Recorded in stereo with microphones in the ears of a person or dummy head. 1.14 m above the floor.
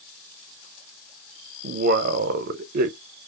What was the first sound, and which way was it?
A man speaking, 55° right (ahead or behind).